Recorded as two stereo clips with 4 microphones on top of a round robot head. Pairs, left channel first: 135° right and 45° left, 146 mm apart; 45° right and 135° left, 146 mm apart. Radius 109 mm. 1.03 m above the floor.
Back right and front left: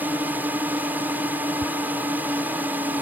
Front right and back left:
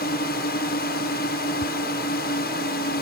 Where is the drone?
35° right.